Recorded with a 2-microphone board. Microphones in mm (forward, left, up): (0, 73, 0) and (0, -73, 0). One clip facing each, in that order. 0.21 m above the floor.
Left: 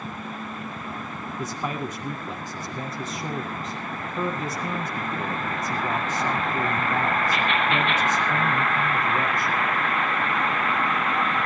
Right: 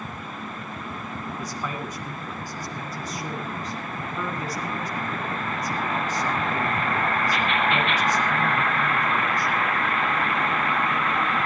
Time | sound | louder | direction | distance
1.4 | a man speaking | left 5 dB | 25° left (ahead or behind) | 1.8 m